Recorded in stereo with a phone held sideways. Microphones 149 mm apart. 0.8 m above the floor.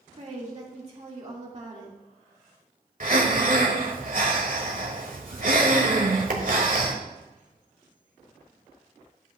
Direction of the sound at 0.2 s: 50° right (ahead or behind).